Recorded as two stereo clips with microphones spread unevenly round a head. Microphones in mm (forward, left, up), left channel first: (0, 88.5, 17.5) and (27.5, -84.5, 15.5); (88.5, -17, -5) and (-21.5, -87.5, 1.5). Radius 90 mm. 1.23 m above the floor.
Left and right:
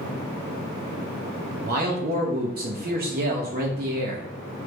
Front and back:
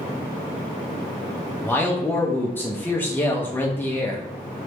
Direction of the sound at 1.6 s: 45° right.